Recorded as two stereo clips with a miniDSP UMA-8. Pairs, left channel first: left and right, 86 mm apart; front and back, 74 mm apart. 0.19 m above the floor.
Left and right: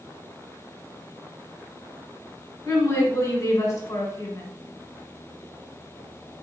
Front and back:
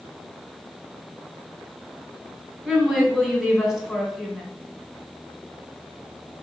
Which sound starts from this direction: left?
A woman speaking, at 2.6 s.